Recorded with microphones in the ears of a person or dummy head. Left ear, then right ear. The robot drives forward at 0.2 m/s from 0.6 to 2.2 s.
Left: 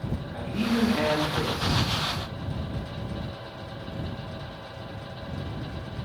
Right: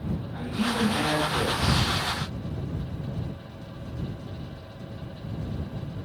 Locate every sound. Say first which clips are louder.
0.3 s a man speaking: even; 60° left (ahead or behind), 1.5 m; by 1.8 s 55° left (ahead or behind), 1.7 m